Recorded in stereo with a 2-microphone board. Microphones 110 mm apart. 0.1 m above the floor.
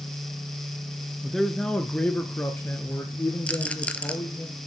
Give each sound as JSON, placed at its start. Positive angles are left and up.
{"t": 1.2, "sound": "a man speaking", "side_deg": 0, "distance_m": 1.1}
{"t": 3.5, "sound": "a rattle", "side_deg": 10, "distance_m": 0.7}